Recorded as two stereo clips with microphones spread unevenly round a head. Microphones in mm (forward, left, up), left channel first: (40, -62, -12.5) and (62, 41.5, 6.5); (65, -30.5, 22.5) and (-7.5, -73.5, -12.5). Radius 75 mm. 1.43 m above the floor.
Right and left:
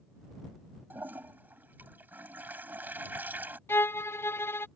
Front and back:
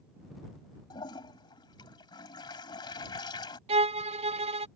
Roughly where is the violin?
Behind.